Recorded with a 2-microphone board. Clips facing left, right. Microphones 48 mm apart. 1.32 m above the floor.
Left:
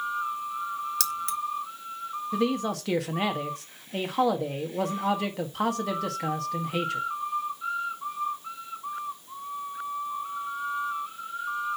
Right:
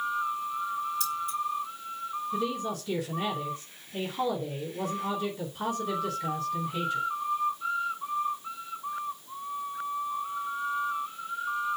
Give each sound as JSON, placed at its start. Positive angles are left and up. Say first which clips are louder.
{"t": 1.0, "sound": "keys jangling", "louder": "left 1 dB", "side_deg": 85, "distance_m": 1.2}
{"t": 2.3, "sound": "a man speaking", "louder": "left 6 dB", "side_deg": 75, "distance_m": 1.6}